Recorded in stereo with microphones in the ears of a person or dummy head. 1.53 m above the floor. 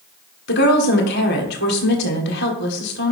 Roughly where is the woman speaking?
Left.